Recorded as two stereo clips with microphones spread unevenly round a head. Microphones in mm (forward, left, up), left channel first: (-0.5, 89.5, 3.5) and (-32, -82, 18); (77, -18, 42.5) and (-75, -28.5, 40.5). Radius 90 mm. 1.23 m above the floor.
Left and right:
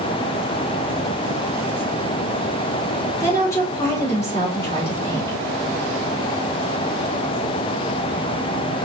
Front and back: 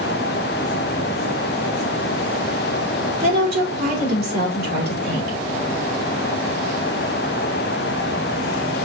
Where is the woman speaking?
155° left, 3 m.